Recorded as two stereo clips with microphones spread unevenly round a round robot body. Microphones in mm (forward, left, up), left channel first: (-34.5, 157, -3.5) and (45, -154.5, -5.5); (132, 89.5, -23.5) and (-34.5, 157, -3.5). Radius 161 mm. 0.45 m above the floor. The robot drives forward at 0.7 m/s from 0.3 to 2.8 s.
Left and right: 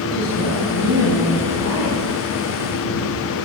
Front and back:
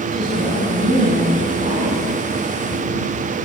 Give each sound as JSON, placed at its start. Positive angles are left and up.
{"t": 0.1, "sound": "a woman speaking", "azimuth_deg": 155, "distance_m": 3.5}